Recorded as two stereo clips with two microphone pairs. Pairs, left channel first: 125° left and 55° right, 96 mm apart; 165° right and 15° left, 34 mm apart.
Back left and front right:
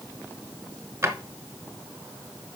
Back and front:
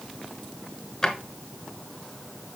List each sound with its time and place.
1.0 s a drawer: 110° right, 1.7 m